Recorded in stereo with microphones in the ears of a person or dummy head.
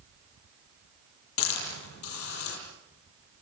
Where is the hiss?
85° left, 10 m.